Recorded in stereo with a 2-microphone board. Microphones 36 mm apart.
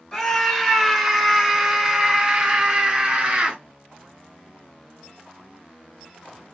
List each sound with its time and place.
0.1 s a scream: 5° left (ahead or behind), 1.3 m; by 3.6 s 35° right (ahead or behind), 1.5 m